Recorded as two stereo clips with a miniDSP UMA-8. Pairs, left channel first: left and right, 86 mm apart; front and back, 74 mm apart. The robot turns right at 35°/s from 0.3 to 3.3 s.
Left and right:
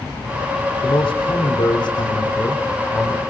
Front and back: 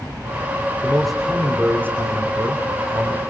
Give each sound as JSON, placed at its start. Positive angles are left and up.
{"t": 0.8, "sound": "a man speaking", "azimuth_deg": 80, "distance_m": 3.5}